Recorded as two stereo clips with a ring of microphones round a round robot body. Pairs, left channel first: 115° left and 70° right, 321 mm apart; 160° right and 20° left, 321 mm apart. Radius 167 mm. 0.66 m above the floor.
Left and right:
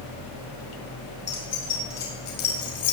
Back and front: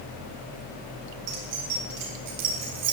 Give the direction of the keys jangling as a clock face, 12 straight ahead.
10 o'clock.